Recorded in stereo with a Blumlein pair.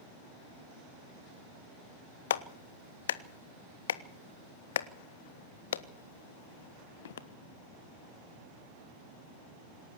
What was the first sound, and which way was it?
A clap, 60° left.